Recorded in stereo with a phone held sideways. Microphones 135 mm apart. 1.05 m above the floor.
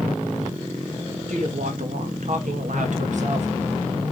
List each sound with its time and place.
1.3 s a woman speaking: 65° right (ahead or behind), 1.8 m; by 3.5 s 55° right (ahead or behind), 1.5 m